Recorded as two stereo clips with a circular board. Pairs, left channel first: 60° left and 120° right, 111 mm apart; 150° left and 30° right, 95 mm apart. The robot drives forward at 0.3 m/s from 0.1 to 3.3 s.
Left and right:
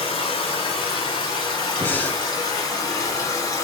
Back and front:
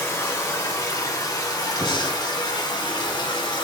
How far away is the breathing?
About 0.8 m.